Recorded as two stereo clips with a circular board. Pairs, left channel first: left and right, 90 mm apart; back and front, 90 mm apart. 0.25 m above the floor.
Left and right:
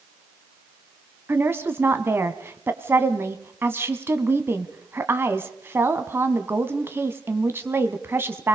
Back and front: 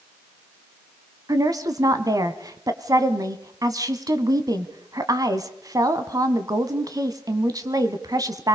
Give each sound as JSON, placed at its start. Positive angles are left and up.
{"t": 1.3, "sound": "a woman speaking", "azimuth_deg": -35, "distance_m": 1.7}